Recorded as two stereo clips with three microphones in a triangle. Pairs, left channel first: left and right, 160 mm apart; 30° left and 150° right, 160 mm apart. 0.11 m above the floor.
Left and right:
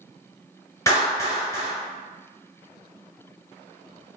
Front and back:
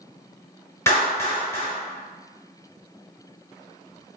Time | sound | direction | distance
0.9 | a clap | 65° left | 1.5 m